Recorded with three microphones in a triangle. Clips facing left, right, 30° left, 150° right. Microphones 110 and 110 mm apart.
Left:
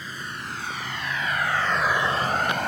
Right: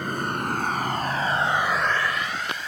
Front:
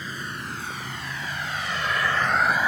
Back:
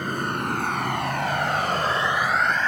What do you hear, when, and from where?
0.0 s a vehicle: 120° right; by 2.7 s 105° left